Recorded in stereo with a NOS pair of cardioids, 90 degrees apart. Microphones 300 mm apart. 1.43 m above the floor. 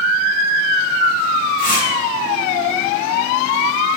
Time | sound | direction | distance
1.6 | tearing paper | 25° left | 1.4 m